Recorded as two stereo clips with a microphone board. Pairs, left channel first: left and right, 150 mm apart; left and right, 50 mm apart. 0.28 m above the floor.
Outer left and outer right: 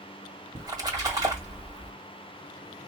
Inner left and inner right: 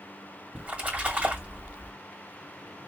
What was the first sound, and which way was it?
A splash, 25° right (ahead or behind).